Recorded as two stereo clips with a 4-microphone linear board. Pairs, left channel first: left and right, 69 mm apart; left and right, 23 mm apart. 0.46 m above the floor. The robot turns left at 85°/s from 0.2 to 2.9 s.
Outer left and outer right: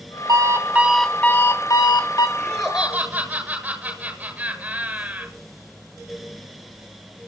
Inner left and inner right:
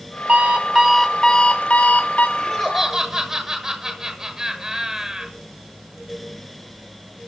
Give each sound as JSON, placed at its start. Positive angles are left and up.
{"t": 0.3, "sound": "an alarm clock", "azimuth_deg": -120, "distance_m": 2.0}
{"t": 2.4, "sound": "laughter", "azimuth_deg": 25, "distance_m": 8.0}